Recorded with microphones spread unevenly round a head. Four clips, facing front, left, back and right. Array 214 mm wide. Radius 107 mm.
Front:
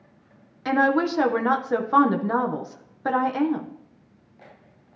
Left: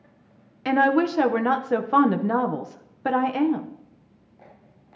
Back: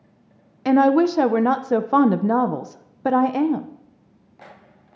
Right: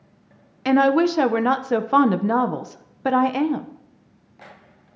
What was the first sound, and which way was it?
A woman speaking, 165° right.